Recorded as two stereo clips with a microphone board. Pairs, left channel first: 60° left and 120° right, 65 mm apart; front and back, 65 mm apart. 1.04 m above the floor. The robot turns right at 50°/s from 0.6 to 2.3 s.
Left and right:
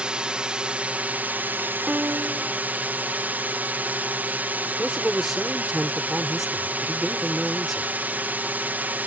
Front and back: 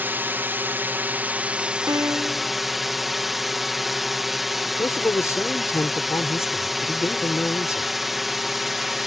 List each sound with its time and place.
0.0 s a drone: straight behind; by 9.1 s 95° right
1.9 s a piano: 170° left; by 2.5 s 165° right
4.7 s a man speaking: 35° right